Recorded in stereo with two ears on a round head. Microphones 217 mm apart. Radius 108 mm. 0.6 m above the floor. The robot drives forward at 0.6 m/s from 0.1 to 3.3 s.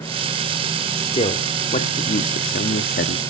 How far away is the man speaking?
About 1.4 m.